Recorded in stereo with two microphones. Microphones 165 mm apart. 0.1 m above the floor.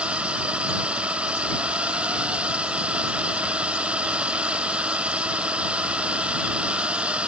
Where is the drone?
5° right (ahead or behind).